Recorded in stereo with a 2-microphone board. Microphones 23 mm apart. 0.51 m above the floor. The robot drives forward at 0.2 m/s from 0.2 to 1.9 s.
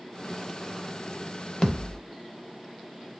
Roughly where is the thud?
Left.